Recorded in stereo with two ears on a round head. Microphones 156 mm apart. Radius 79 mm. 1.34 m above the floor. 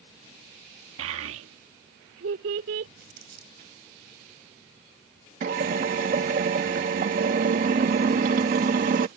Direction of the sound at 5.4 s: 45° right (ahead or behind).